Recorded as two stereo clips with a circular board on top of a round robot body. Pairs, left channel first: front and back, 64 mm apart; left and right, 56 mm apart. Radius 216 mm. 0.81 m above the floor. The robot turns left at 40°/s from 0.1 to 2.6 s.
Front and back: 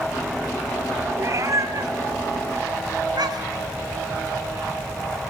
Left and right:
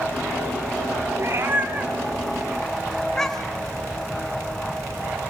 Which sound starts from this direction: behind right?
A cat meowing, at 1.2 s.